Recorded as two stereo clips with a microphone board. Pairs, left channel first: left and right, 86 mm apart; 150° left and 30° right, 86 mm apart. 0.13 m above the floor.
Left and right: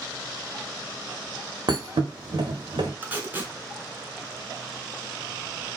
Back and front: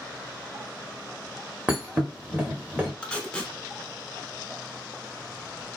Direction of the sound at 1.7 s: 105° right.